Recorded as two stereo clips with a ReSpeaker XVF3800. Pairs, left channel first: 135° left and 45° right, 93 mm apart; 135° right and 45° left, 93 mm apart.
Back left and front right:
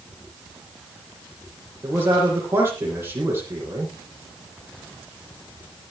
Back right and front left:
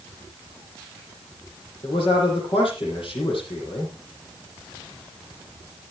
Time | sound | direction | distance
1.8 | a man speaking | 110° right | 8.5 m